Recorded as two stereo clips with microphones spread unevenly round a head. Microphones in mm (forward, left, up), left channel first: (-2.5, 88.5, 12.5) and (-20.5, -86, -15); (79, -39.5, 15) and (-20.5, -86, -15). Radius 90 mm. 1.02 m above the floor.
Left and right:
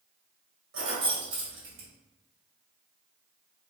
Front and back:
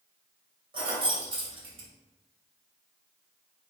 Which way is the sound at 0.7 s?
115° right.